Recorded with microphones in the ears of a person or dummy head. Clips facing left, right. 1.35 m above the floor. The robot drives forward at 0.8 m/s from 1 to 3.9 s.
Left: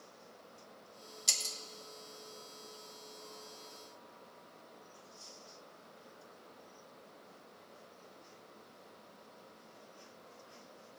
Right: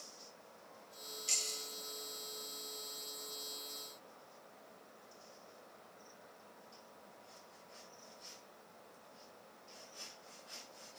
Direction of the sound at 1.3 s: 75° left (ahead or behind).